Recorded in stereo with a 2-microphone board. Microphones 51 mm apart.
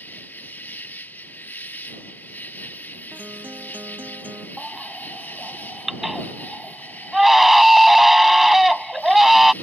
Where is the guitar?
35° right (ahead or behind).